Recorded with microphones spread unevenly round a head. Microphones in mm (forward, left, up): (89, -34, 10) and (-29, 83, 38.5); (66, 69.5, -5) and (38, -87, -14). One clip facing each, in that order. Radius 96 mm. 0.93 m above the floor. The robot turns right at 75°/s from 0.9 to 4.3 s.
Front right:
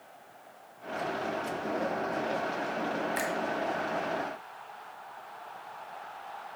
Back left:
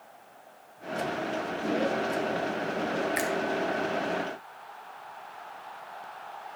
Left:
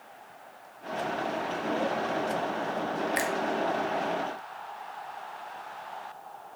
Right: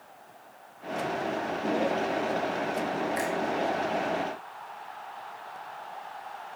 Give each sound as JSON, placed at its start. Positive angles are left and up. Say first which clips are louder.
{"t": 3.2, "sound": "a finger snap", "louder": "back left 3 dB, even", "azimuth_deg": 65, "distance_m": 1.4}